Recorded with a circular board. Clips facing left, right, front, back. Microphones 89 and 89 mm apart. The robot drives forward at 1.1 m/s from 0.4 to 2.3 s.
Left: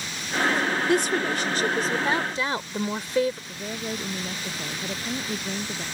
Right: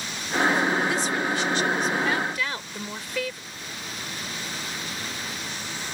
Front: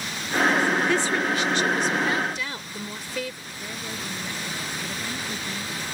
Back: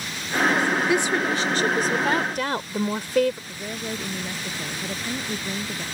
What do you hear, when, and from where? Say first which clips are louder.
0.9 s a woman speaking: left 3 dB, back 1 dB; 105° left; by 3.4 s 150° left
3.5 s a woman speaking: left 6 dB, back 4 dB; 125° left